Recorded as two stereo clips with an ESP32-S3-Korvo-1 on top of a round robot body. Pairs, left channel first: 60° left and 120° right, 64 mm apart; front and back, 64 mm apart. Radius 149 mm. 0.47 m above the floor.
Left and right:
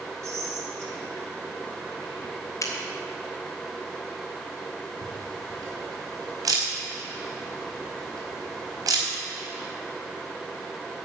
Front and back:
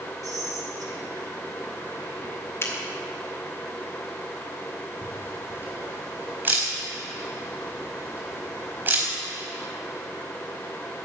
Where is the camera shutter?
125° right, 4 m.